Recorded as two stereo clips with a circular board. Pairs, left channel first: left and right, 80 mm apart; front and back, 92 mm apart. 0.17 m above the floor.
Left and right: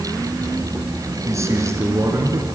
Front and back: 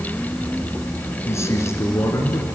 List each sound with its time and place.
1.2 s a man speaking: 50° right, 2 m